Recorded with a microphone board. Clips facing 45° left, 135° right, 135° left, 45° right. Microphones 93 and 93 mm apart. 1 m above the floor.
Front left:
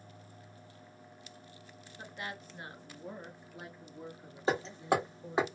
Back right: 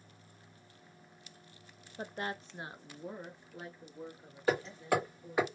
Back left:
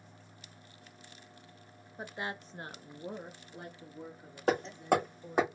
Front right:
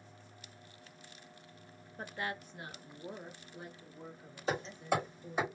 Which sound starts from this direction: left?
Hammering, at 4.5 s.